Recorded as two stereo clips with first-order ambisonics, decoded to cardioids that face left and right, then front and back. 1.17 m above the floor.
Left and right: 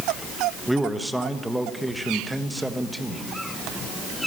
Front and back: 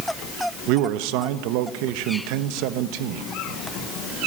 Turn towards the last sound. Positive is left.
turn(degrees=-175)